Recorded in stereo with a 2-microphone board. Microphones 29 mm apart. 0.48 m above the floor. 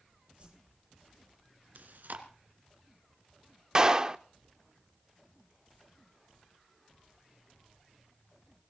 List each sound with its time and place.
0.4 s a whoosh: 40° right (ahead or behind), 9.5 m
1.8 s chewing: 80° right, 2 m
3.8 s a clap: 25° right (ahead or behind), 0.7 m